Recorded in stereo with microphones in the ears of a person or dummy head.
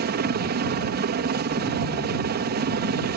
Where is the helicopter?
45° right (ahead or behind).